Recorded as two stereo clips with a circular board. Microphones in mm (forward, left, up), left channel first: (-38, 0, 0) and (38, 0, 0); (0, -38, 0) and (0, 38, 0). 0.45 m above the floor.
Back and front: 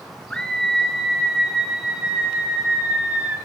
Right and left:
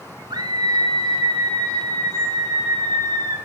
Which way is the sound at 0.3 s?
100° left.